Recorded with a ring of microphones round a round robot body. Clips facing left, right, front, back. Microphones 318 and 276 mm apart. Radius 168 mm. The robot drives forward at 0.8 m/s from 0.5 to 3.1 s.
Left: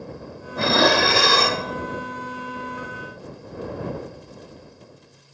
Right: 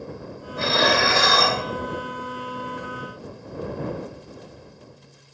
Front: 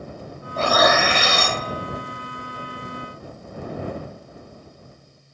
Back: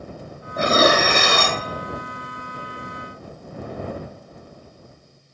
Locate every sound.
0.6 s dishes clattering: 100° left, 0.6 m; by 1.6 s 155° left, 1.1 m